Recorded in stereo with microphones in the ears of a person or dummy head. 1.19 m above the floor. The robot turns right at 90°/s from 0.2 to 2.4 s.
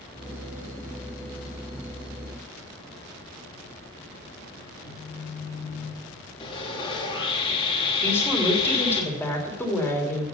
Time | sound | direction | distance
4.8 | a phone buzzing | 35° left (ahead or behind) | 7 m
6.4 | sawing | 25° left (ahead or behind) | 2.5 m
8.0 | a woman speaking | 10° left (ahead or behind) | 3 m